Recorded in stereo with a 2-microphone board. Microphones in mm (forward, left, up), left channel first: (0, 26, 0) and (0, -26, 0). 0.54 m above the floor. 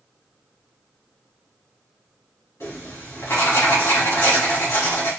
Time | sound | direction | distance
2.6 | writing | 60° left (ahead or behind) | 1.8 m